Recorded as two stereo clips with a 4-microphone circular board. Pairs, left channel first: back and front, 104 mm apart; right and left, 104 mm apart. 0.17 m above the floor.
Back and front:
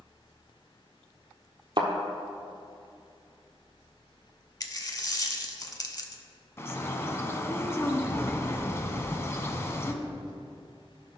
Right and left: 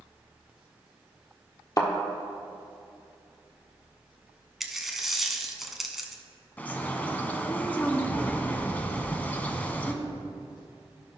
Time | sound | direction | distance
1.8 | a thud | 40° right | 1.2 m
4.6 | a dropped coin | 175° left | 0.7 m
6.6 | a bird | 150° right | 0.6 m